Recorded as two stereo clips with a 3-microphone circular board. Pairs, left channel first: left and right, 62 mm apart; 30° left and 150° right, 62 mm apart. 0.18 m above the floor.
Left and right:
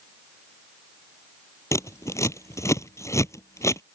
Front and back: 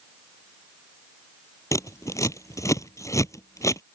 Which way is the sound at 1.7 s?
55° left.